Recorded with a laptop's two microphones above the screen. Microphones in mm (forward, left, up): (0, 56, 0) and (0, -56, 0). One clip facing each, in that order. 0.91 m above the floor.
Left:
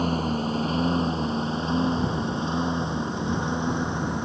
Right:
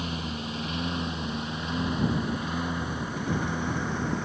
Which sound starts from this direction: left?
A lawn mower, at 0.0 s.